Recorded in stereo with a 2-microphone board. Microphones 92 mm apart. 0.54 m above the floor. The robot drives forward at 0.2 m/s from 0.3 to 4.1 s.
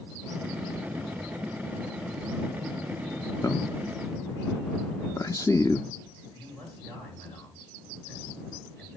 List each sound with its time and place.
3.4 s a man speaking: 35° left (ahead or behind), 0.8 m
6.4 s a man speaking: 10° left (ahead or behind), 7.5 m